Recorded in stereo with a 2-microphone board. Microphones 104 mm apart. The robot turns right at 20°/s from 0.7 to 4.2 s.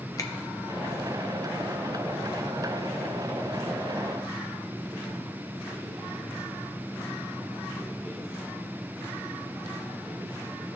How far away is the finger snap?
About 1.0 m.